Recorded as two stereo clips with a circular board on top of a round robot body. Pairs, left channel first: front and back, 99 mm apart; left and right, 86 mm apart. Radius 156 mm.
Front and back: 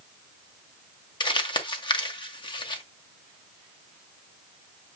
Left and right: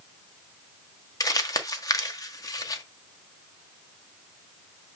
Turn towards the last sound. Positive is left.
turn(degrees=40)